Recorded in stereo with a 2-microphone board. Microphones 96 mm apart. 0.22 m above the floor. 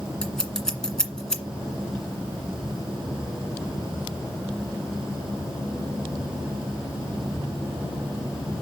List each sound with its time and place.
0.2 s scissors: 5° left (ahead or behind), 1.8 m